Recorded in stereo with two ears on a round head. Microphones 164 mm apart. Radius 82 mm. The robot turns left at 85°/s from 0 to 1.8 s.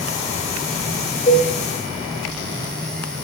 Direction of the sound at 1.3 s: 40° left (ahead or behind).